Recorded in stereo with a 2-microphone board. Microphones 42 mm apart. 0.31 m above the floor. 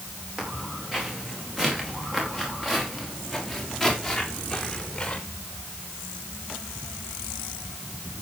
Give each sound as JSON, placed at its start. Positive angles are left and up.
{"t": 0.4, "sound": "footsteps", "side_deg": -15, "distance_m": 8.5}